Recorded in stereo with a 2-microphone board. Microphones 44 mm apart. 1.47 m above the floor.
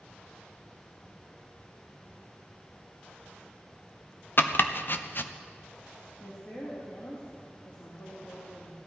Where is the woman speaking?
60° left (ahead or behind), 2.5 m.